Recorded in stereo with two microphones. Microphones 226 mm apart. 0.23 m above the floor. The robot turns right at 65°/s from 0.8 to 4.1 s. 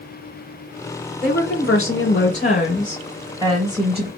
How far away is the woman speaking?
About 3 m.